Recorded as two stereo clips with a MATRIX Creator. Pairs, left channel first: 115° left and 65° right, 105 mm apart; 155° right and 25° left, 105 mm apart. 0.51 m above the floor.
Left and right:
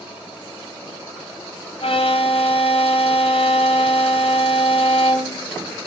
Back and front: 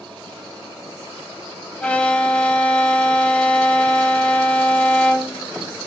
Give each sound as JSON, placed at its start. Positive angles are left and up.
{"t": 1.8, "sound": "a violin", "azimuth_deg": 125, "distance_m": 3.0}